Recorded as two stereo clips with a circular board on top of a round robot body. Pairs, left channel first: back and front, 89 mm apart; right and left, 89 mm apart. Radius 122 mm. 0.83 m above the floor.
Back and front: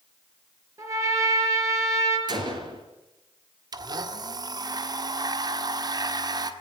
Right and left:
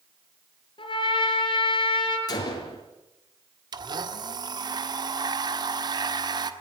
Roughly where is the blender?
Ahead left.